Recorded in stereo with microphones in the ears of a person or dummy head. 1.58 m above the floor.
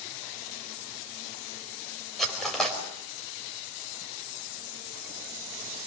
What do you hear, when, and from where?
2.2 s cutlery clinking: centre (ahead or behind), 4.5 m